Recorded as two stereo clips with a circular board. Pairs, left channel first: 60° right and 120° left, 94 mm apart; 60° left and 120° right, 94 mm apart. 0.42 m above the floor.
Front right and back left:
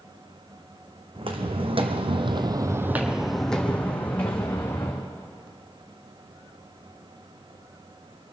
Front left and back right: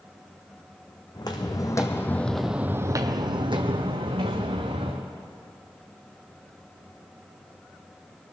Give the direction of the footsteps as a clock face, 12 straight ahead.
9 o'clock.